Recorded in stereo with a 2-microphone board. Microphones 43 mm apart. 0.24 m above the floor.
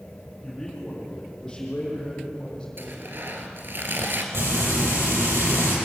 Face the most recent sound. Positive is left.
turn(degrees=-75)  # may be behind; listen again after turning